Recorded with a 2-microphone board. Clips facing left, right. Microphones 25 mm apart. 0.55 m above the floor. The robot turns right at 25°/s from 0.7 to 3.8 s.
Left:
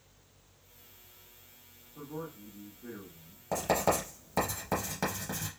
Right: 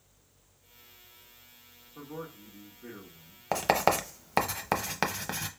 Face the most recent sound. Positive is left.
turn(degrees=-50)  # may be behind; listen again after turning